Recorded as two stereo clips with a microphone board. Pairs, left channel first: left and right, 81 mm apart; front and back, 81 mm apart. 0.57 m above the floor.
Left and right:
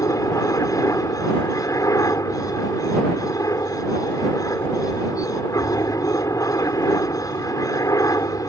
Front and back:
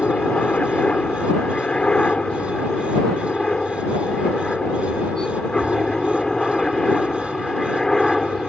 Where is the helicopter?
70° left; by 8.5 s 85° left.